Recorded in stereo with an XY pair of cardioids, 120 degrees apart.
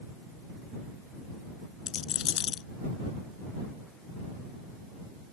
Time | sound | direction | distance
1.9 | a rattle | 60° left | ?